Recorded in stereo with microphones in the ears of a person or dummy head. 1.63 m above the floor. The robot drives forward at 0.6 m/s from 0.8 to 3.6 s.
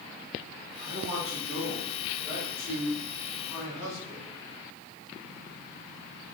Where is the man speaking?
35° right (ahead or behind), 0.9 m; by 4.3 s 15° right (ahead or behind), 2.5 m.